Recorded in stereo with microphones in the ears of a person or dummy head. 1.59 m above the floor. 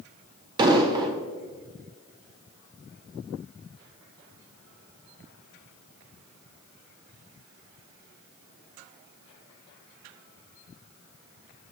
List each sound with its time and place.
0.6 s an explosion: 25° right (ahead or behind), 0.9 m